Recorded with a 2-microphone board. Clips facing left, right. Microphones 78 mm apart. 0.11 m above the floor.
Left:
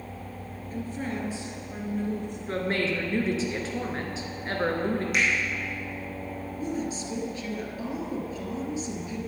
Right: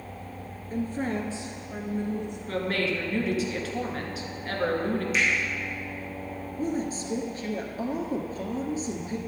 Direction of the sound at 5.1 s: 60° left (ahead or behind).